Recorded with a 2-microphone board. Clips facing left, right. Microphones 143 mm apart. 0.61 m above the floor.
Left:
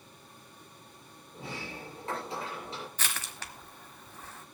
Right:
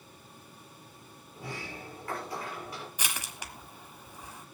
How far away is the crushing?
About 1.2 m.